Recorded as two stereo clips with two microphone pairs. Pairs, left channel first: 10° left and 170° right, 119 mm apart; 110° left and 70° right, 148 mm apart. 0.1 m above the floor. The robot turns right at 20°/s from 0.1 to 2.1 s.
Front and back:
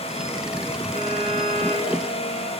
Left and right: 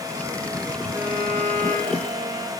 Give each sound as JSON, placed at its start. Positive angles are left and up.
{"t": 0.9, "sound": "a violin", "azimuth_deg": 10, "distance_m": 7.0}